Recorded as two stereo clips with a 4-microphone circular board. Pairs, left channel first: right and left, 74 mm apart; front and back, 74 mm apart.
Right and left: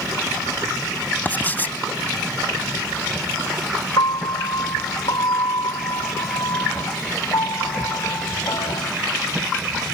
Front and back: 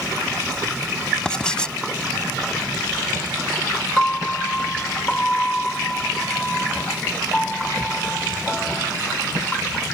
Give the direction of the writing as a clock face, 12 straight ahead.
2 o'clock.